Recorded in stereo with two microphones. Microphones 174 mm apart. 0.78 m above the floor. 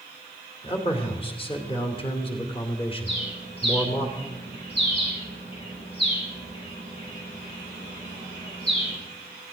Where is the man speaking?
30° left (ahead or behind), 2.5 m.